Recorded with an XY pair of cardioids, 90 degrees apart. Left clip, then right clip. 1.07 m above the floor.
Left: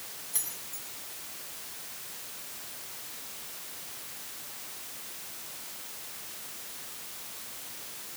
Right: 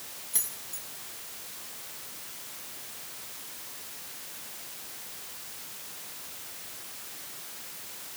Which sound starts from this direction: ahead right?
Keys jangling, at 0.3 s.